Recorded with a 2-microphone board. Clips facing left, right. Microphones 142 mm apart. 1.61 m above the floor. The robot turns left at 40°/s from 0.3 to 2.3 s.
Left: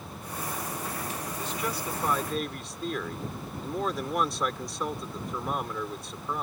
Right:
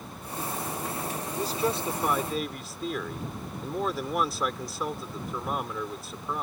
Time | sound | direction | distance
1.4 | a man speaking | 140° right | ?